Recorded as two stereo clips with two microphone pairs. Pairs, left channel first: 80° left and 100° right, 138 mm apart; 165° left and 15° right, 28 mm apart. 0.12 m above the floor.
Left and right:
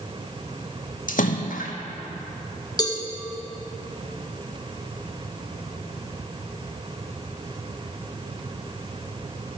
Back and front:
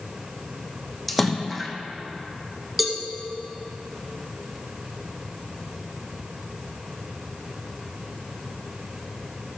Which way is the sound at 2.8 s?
65° left.